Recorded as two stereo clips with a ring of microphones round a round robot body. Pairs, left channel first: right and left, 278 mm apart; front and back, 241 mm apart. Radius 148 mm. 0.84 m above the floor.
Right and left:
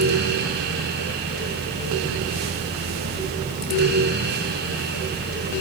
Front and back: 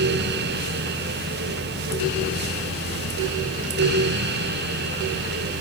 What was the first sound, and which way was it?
Only background noise.